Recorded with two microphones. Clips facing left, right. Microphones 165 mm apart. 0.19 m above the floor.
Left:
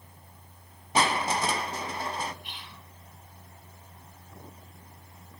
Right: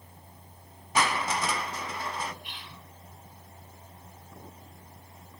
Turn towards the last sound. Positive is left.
turn(degrees=50)  # may be behind; listen again after turning